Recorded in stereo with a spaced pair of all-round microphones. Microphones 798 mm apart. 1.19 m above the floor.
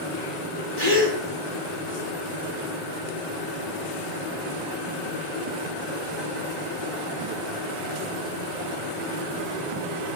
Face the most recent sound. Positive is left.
turn(degrees=-30)  # may be behind; listen again after turning